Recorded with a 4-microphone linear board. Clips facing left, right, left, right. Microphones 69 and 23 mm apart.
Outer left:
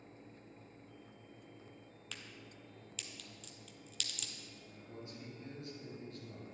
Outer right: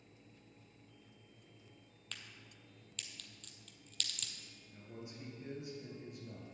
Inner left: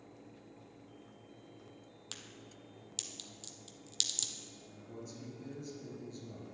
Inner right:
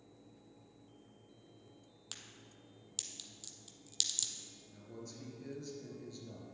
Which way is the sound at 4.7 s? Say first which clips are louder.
Outer right 1 dB, inner left 1 dB; 20° right (ahead or behind).